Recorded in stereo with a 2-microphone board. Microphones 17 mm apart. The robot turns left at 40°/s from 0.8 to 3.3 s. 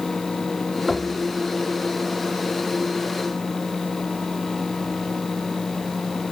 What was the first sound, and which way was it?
Only background noise.